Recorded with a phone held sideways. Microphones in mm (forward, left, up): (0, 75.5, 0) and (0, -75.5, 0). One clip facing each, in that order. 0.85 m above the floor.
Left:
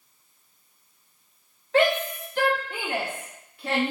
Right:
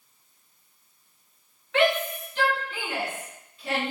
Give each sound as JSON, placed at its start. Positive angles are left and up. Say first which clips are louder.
{"t": 1.7, "sound": "a shout", "louder": "left 2 dB", "side_deg": 35, "distance_m": 1.2}